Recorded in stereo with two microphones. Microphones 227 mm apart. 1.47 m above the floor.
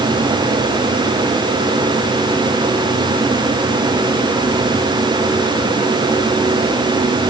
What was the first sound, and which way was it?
Only background noise.